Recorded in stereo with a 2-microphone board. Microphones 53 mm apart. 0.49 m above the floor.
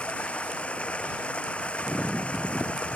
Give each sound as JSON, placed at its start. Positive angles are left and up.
{"t": 0.0, "sound": "running water", "side_deg": 20}